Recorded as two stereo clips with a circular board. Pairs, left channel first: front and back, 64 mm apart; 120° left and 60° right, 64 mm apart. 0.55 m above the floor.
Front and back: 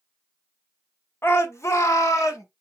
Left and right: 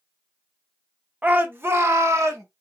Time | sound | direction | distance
1.2 | a shout | 10° right | 0.9 m